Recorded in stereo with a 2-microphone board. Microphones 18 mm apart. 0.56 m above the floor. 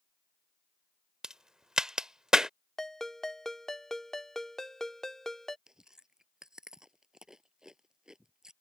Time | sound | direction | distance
1.2 | a crack | 40° right (ahead or behind) | ?
2.8 | a ringtone | 25° left (ahead or behind) | ?
5.7 | chewing | 40° right (ahead or behind) | ?